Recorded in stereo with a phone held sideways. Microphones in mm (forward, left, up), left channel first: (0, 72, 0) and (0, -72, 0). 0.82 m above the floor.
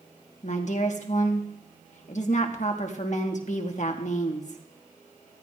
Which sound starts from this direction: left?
A woman speaking, at 0.4 s.